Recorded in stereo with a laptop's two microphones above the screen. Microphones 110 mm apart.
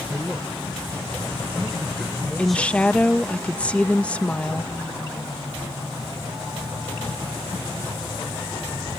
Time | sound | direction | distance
0.1 | a man speaking | centre (ahead or behind) | ?
2.4 | a woman speaking | 10° left (ahead or behind) | ?